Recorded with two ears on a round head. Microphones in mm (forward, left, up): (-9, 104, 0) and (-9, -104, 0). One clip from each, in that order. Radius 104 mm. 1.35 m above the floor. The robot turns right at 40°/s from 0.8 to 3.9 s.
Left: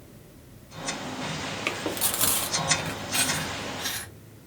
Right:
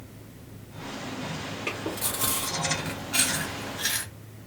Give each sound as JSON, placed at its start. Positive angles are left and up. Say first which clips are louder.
{"t": 1.7, "sound": "chewing", "louder": "left 2 dB", "side_deg": 55, "distance_m": 0.8}